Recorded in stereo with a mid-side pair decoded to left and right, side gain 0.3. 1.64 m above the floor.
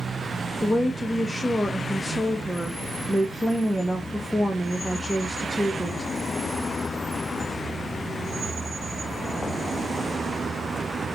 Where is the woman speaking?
10° left, 0.8 m.